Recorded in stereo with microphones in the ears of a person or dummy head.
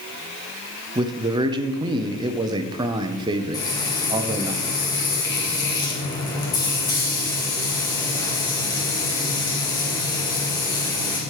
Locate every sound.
0.9 s a man speaking: 25° right (ahead or behind), 0.8 m
3.5 s frying: 20° left (ahead or behind), 2.0 m